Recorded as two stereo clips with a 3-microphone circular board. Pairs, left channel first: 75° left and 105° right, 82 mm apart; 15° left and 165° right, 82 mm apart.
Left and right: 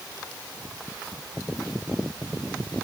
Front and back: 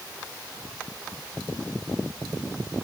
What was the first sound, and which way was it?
Only background noise.